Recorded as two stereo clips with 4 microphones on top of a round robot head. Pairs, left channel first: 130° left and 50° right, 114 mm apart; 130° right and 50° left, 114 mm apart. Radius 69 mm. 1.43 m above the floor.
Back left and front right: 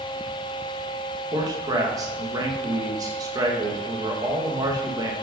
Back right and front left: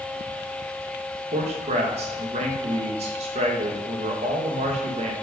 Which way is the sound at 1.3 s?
15° left.